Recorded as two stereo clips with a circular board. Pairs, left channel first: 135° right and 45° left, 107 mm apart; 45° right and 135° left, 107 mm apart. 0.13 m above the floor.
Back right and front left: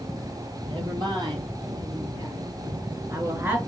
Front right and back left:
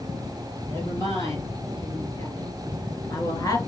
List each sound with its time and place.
0.7 s a woman speaking: 10° left, 2.5 m; by 3.6 s 20° right, 1.5 m